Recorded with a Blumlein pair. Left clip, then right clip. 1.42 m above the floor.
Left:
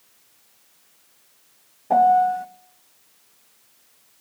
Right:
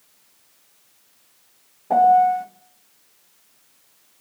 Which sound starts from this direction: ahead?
A piano, at 1.9 s.